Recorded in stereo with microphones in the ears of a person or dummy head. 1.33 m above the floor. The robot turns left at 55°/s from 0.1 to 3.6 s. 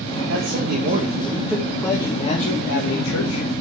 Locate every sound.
0.3 s a man speaking: 110° right, 1.7 m; by 3.5 s 75° left, 1.7 m